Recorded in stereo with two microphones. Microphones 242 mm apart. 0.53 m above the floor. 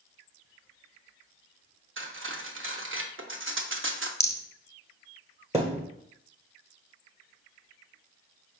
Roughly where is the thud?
Right.